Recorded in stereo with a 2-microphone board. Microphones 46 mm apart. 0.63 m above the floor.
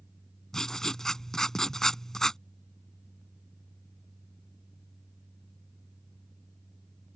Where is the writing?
10° left (ahead or behind).